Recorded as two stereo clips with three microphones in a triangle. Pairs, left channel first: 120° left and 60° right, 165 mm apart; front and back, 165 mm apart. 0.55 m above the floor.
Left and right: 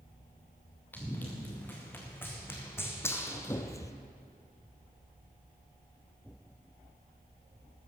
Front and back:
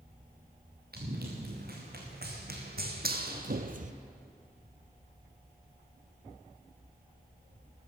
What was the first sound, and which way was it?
Running footsteps, 160° right.